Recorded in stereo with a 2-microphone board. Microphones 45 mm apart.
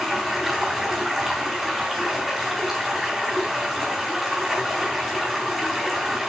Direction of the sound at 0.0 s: Centre (ahead or behind).